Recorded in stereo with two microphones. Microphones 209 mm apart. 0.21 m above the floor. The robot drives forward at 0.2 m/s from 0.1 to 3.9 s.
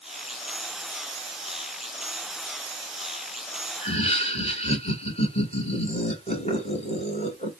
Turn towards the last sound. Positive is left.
turn(degrees=30)  # may be behind; listen again after turning